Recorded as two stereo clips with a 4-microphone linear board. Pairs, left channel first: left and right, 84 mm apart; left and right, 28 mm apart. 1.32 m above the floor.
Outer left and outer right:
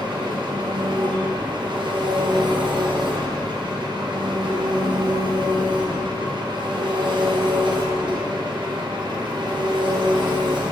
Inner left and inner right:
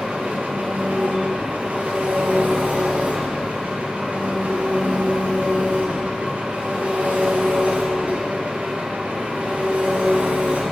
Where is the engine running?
70° right (ahead or behind), 0.9 m.